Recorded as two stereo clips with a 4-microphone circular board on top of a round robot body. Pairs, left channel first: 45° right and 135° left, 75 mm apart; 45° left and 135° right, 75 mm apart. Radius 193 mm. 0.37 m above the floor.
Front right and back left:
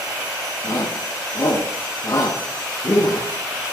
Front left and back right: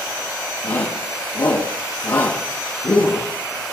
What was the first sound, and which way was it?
A shout, straight ahead.